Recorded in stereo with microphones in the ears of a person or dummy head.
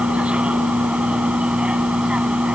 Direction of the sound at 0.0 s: 5° right (ahead or behind).